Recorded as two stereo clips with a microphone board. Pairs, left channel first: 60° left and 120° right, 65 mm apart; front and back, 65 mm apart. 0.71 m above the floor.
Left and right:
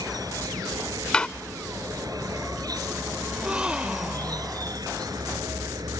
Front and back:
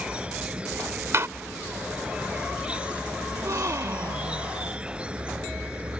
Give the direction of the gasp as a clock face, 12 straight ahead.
6 o'clock.